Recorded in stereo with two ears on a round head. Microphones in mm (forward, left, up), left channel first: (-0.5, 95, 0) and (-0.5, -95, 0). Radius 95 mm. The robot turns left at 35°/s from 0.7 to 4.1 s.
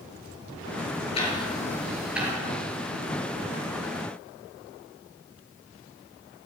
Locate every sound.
1.1 s ticking: 30° left (ahead or behind), 4.5 m; by 2.3 s 10° right (ahead or behind), 4.5 m